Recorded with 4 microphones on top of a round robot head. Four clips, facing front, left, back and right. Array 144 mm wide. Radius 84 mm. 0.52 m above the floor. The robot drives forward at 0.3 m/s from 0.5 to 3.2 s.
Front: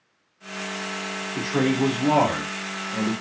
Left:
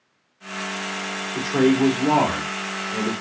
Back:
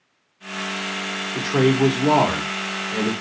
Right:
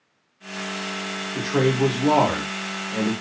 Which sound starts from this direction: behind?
A man speaking, at 1.4 s.